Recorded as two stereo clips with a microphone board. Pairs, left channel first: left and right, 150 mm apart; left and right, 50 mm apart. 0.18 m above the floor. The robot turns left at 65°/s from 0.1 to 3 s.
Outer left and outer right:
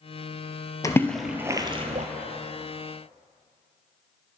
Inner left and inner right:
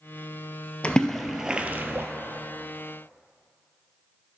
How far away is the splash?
About 0.7 m.